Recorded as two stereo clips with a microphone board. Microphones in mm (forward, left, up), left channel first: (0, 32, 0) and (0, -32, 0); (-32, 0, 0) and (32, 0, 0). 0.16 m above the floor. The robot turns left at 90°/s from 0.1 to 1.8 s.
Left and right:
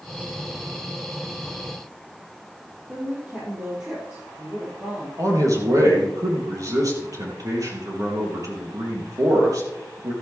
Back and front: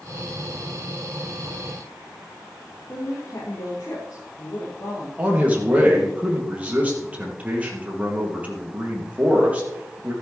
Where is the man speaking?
70° right, 4 m.